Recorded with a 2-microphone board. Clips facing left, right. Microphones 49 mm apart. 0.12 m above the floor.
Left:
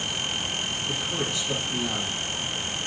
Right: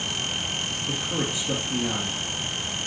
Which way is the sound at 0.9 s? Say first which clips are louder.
Right 2 dB; 25° right (ahead or behind).